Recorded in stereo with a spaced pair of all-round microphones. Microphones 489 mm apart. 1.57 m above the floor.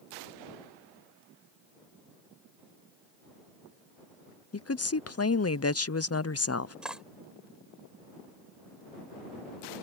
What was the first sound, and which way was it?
A woman speaking, 30° left (ahead or behind).